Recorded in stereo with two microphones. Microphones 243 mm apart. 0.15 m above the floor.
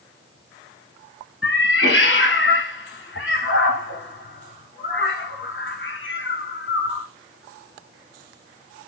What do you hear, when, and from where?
1.4 s a cat meowing: 55° left (ahead or behind), 0.7 m